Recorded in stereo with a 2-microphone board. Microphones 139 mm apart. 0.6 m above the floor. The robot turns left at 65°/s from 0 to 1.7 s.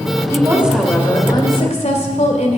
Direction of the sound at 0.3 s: 150° right.